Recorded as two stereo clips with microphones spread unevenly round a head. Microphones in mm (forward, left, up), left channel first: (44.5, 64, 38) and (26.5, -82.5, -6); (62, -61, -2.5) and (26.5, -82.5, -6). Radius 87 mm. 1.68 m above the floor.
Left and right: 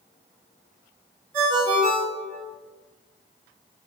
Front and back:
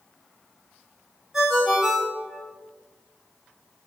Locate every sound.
1.3 s a ringtone: 80° right, 1.3 m